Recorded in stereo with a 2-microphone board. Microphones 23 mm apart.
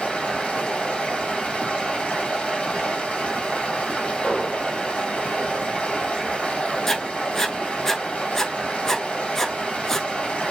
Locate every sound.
0.0 s running water: 75° left (ahead or behind), 1.5 m
4.2 s an explosion: 50° left (ahead or behind), 1.6 m
6.9 s writing: 20° left (ahead or behind), 0.5 m